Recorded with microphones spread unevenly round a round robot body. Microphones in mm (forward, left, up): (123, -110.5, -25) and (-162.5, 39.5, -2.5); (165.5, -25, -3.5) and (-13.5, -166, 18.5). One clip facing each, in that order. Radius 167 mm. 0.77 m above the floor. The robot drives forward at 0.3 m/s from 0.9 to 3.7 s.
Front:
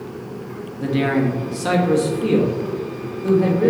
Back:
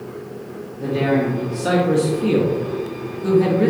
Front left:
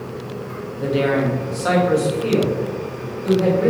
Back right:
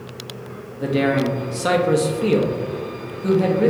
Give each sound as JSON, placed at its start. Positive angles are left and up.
{"t": 0.8, "sound": "a man speaking", "azimuth_deg": -65, "distance_m": 0.6}